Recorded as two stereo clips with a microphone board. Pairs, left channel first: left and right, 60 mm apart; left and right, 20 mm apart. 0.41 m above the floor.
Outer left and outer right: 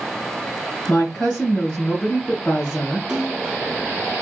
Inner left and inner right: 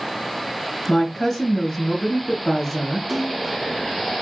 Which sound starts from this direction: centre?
A splash, at 3.1 s.